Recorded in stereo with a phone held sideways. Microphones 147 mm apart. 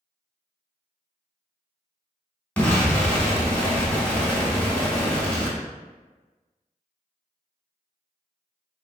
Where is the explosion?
10° left (ahead or behind), 0.9 m.